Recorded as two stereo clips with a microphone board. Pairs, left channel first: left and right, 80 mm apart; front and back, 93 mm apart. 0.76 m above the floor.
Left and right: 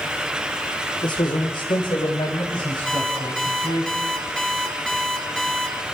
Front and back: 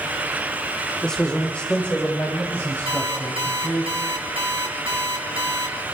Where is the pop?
I don't hear a pop.